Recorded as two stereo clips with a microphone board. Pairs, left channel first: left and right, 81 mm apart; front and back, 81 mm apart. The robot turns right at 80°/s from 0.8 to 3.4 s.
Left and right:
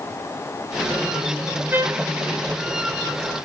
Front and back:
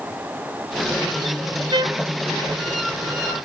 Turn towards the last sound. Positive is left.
turn(degrees=-25)